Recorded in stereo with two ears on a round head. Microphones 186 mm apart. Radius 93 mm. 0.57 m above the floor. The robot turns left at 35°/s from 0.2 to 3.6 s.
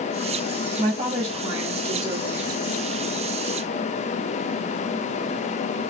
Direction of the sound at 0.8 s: 30° right.